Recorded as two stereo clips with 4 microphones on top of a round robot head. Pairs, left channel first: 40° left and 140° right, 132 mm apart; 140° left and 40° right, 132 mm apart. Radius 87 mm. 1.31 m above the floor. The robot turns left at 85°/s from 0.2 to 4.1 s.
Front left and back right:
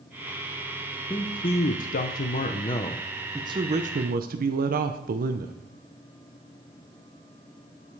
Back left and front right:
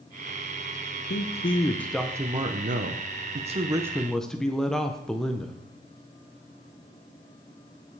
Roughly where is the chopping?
No chopping in this recording.